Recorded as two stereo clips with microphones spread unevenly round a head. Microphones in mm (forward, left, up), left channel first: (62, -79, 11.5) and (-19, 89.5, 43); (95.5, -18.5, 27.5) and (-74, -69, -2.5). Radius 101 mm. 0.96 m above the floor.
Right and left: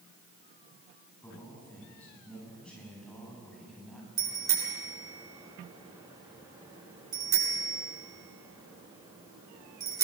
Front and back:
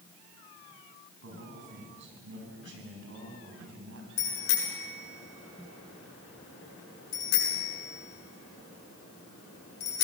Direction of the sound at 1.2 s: 145° right.